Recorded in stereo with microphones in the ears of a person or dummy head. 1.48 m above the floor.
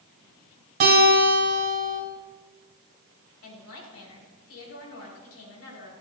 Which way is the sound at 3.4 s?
80° left.